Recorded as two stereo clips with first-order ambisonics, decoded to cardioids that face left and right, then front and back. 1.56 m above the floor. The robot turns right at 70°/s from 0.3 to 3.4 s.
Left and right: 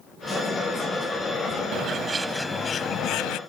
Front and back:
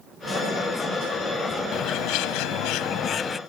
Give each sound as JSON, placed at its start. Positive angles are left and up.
{"t": 1.7, "sound": "a bird", "azimuth_deg": -45}